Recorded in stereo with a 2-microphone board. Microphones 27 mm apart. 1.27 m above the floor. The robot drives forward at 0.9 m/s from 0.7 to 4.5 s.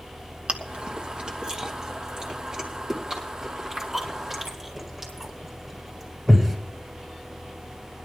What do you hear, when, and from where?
0.5 s chewing: 40° right (ahead or behind), 1.2 m; by 6.5 s 10° right (ahead or behind), 4.5 m